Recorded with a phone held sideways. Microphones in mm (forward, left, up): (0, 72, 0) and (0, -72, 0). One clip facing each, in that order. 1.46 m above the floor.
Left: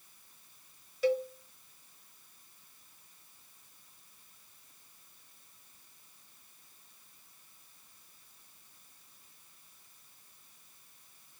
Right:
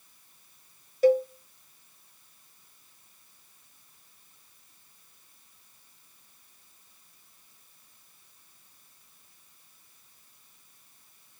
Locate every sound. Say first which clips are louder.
1.0 s a cowbell: right 8 dB; 45° right (ahead or behind), 0.9 m